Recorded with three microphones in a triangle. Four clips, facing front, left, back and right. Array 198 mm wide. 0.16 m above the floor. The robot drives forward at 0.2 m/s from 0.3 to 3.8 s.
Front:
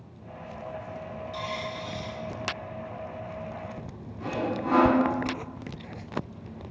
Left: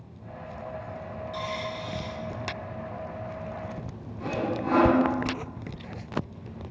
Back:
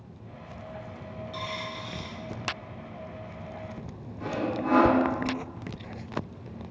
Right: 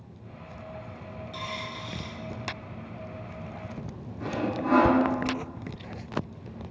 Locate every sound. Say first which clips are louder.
1.3 s a dropped coin: left 4 dB, front 2 dB; 150° right, 1.1 m; by 2.2 s 155° right, 1.2 m
4.2 s sawing: even, even; 130° right, 1.8 m